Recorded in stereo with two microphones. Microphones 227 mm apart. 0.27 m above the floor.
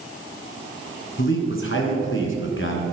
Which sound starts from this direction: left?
A man speaking, at 1.2 s.